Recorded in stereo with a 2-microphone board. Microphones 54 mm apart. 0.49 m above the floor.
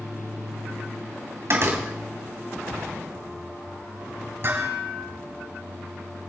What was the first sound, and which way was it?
A door slam, 55° right (ahead or behind).